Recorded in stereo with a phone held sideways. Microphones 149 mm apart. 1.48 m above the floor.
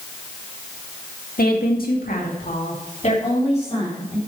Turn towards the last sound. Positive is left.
turn(degrees=35)  # may be behind; listen again after turning